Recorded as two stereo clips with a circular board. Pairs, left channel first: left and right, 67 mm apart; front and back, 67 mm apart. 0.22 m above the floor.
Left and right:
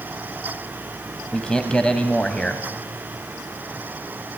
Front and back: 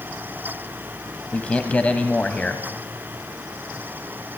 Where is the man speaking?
35° left, 1.6 m.